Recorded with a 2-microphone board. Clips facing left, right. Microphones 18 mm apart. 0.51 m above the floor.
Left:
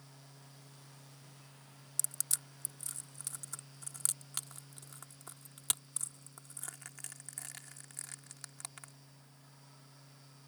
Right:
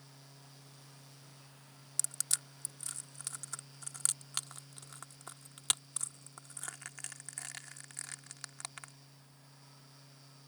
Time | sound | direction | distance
2.0 | crushing | 25° right (ahead or behind) | ?